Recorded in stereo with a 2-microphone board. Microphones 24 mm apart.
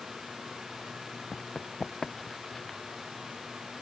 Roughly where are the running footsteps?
Left.